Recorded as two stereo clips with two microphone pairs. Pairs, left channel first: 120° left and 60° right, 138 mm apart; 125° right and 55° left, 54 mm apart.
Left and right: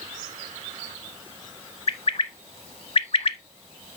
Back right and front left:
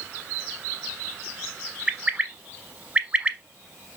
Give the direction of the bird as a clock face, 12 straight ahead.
9 o'clock.